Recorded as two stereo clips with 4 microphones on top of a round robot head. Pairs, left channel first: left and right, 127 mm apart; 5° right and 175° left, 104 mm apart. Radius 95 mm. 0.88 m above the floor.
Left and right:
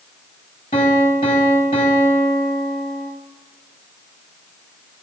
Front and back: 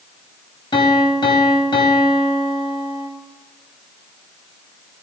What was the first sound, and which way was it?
A piano, 35° left.